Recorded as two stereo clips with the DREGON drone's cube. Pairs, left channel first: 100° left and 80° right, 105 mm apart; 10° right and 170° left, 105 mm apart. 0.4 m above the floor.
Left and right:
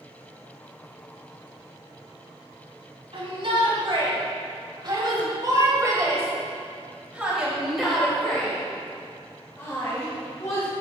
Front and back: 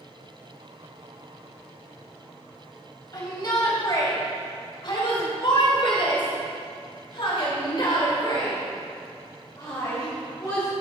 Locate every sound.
3.1 s a shout: 60° right, 3 m; by 10.7 s 50° left, 2.5 m